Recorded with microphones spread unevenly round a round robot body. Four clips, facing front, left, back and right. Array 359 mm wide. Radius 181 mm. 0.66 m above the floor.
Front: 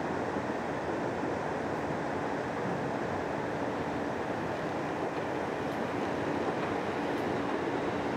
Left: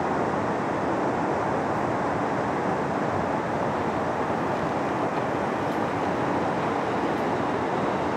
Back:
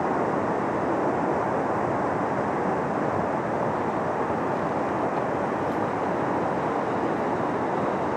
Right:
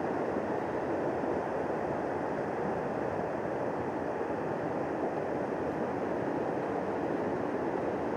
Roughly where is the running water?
Behind left.